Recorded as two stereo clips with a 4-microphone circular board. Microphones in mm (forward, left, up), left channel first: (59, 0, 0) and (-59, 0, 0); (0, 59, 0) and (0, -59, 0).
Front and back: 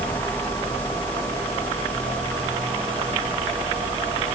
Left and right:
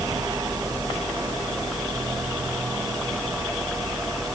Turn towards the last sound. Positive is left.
No sound to turn to.